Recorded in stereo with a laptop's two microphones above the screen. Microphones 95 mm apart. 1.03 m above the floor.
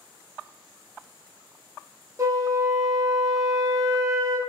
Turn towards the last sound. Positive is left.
turn(degrees=-30)  # may be behind; listen again after turning